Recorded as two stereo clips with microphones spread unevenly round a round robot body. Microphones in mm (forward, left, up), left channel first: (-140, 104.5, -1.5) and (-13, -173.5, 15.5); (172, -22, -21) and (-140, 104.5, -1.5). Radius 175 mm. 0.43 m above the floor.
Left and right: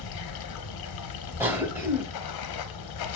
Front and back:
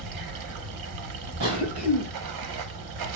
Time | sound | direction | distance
0.0 | running water | 125° left | 0.8 m
1.4 | a cough | 150° right | 2 m